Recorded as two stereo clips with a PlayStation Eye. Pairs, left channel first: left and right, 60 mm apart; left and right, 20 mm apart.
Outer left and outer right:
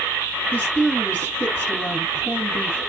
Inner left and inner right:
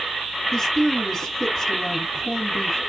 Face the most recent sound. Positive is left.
turn(degrees=25)  # may be behind; listen again after turning